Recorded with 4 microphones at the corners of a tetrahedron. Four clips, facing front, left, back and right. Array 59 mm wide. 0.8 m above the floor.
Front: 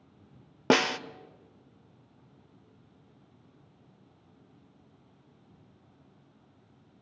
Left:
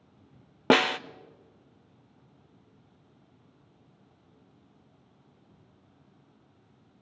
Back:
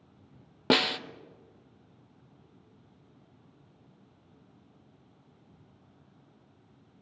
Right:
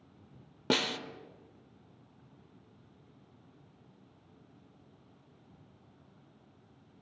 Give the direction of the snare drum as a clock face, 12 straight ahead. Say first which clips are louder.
Left 9 dB, front 1 dB; 10 o'clock.